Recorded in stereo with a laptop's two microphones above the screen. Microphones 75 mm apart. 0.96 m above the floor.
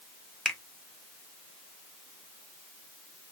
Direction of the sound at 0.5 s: 5° left (ahead or behind).